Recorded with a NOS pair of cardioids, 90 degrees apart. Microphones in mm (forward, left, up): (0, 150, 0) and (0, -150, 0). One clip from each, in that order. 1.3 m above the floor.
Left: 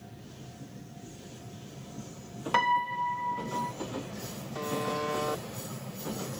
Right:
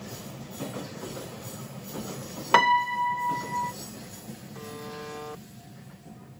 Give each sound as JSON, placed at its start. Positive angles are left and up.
{"t": 2.5, "sound": "a piano", "azimuth_deg": -50}
{"t": 4.5, "sound": "a buzzer", "azimuth_deg": 40}